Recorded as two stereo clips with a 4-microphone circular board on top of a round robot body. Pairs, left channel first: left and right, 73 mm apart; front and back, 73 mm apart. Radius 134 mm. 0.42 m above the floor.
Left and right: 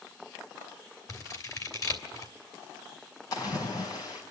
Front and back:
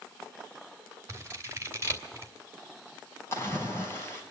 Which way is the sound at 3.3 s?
55° left.